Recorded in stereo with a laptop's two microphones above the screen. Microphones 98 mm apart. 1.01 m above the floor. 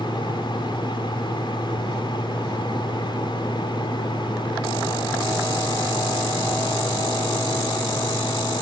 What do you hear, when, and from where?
0.0 s a fan: 55° left (ahead or behind)